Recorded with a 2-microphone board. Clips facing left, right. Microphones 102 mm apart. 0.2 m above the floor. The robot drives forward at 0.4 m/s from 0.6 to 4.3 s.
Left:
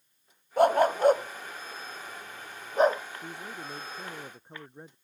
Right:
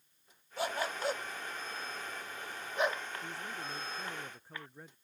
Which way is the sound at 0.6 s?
55° left (ahead or behind).